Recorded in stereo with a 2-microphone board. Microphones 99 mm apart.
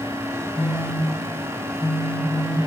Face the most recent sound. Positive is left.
turn(degrees=25)  # may be behind; listen again after turning